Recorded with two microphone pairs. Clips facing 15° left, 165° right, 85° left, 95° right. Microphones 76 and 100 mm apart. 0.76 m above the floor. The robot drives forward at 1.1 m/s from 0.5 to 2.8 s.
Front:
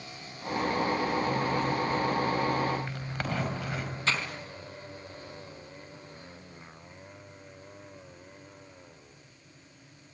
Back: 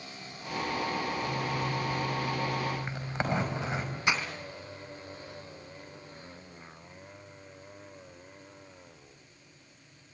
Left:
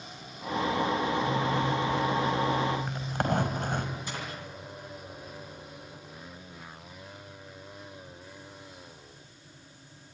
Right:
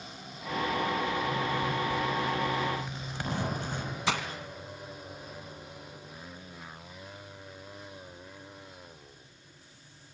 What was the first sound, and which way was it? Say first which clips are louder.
A zipper: front 4 dB, left 3 dB; 105° left.